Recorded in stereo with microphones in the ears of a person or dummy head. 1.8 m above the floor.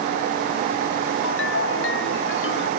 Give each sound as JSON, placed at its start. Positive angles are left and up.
{"t": 1.2, "sound": "a ringtone", "side_deg": 85}